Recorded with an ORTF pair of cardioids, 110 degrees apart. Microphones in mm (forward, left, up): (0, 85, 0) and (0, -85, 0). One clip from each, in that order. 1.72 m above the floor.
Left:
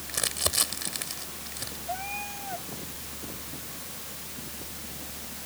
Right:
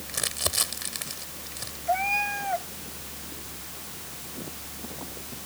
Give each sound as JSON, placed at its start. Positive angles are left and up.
{"t": 0.1, "sound": "crumpling", "azimuth_deg": 0}
{"t": 1.9, "sound": "a cat meowing", "azimuth_deg": -55}